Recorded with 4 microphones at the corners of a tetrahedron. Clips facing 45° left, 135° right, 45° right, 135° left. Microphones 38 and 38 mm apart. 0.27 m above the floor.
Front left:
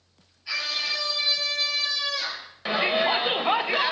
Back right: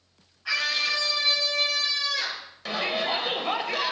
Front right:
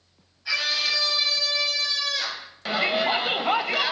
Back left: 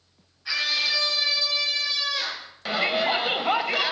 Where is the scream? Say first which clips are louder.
Back right 3 dB, even; 150° right, 3.5 m; by 2.5 s 160° right, 5.5 m.